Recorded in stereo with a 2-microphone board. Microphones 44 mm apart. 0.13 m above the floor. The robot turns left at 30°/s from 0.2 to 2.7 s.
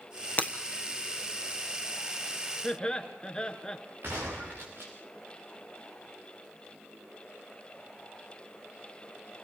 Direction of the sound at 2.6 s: 20° left (ahead or behind).